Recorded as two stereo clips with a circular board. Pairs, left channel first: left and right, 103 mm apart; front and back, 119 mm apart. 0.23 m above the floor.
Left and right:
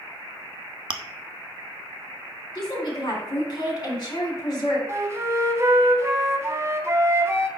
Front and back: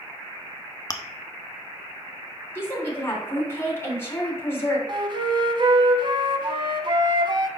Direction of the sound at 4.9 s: 145° right.